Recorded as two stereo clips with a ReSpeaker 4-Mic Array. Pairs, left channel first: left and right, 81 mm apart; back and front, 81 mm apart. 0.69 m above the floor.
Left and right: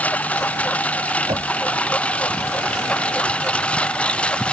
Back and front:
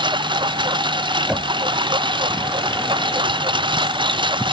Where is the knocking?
80° right.